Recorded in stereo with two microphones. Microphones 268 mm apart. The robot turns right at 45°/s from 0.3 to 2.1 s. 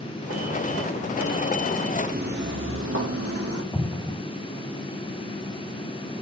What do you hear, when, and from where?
2.1 s footsteps: 35° right (ahead or behind), 0.9 m; by 3.6 s 60° right (ahead or behind), 1.9 m
3.7 s an explosion: 10° left (ahead or behind), 0.8 m